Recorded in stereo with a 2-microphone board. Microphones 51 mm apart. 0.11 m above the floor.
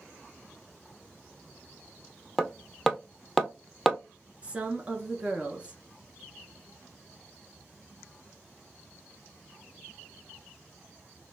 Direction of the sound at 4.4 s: 25° right (ahead or behind).